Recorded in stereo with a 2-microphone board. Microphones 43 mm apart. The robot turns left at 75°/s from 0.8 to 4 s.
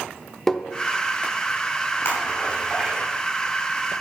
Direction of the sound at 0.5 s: 15° left (ahead or behind).